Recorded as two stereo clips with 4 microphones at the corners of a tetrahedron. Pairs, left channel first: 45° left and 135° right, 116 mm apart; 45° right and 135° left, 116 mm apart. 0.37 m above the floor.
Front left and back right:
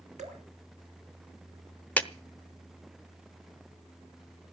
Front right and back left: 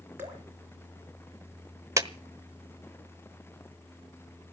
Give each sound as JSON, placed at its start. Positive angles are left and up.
{"t": 0.2, "sound": "dripping", "azimuth_deg": -150, "distance_m": 3.5}
{"t": 2.0, "sound": "a clap", "azimuth_deg": 110, "distance_m": 1.0}